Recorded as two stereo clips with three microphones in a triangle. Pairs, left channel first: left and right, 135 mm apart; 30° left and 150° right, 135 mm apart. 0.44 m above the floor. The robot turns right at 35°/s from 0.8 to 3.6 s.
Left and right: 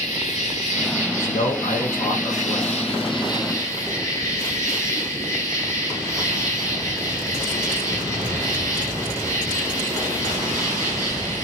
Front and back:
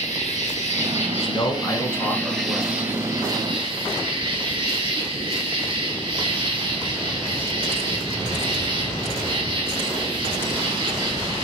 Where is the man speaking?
80° left, 1.4 m; by 2.8 s 145° left, 1.4 m.